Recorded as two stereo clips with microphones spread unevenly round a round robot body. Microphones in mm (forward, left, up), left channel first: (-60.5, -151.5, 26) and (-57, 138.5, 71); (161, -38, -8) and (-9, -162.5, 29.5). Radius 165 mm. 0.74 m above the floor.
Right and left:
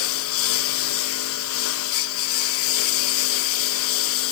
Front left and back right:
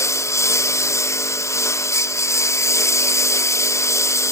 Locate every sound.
0.0 s a lawn mower: 40° right